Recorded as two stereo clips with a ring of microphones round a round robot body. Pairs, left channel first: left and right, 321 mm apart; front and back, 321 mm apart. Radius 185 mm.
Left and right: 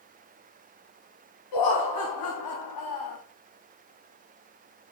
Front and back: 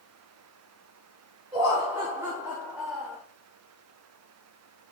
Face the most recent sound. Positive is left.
turn(degrees=90)